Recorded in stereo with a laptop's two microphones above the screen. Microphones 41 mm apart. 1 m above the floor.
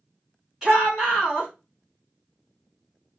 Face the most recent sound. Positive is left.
turn(degrees=-15)  # may be behind; listen again after turning